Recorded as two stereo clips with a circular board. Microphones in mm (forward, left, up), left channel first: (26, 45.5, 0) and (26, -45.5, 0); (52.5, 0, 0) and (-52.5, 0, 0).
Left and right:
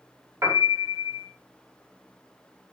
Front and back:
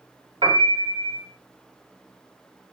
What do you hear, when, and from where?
0.4 s a piano: 150° right, 0.8 m